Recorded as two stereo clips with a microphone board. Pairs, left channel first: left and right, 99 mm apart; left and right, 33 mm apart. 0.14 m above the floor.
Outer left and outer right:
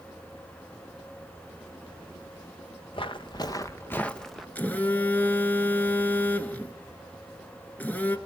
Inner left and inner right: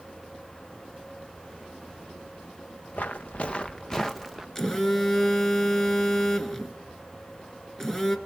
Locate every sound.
2.9 s footsteps: 60° left (ahead or behind), 1.4 m; by 4.5 s centre (ahead or behind), 1.3 m
4.5 s a phone buzzing: 15° left (ahead or behind), 1.2 m